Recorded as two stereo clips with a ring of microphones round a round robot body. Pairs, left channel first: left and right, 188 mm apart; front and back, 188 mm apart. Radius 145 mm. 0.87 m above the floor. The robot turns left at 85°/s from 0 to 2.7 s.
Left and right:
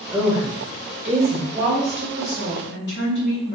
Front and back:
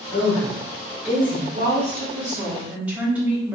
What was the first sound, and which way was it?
A woman speaking, 5° right.